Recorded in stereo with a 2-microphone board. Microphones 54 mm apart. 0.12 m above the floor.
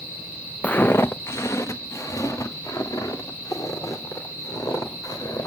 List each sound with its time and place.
0.6 s footsteps: 30° left (ahead or behind), 0.5 m; by 5.5 s 70° left (ahead or behind), 4.5 m